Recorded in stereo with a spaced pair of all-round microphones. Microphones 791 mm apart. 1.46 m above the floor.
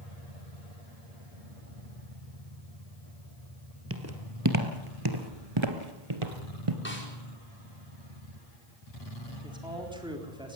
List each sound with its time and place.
3.9 s footsteps: 15° right (ahead or behind), 2 m; by 6.8 s 40° right (ahead or behind), 1.9 m
6.8 s a snare drum: 15° left (ahead or behind), 5 m
9.4 s a man speaking: 5° right (ahead or behind), 4 m